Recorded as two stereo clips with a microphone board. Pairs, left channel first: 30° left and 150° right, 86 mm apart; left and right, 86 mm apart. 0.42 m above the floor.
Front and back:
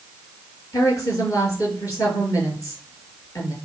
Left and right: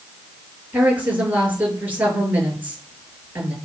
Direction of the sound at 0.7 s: 20° right.